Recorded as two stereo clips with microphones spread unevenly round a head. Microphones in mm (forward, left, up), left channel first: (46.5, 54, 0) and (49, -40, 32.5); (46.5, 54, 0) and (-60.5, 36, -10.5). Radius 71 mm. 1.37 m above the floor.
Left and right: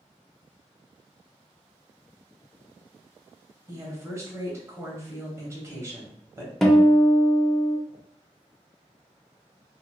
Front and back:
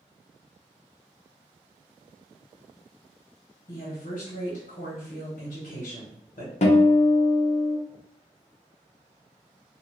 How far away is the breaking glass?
No breaking glass in this recording.